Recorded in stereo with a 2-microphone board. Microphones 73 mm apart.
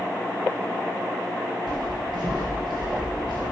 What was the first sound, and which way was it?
Footsteps, 80° right.